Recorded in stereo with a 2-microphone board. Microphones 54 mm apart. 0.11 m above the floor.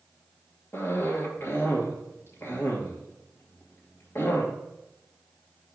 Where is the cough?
50° left (ahead or behind), 2.5 m.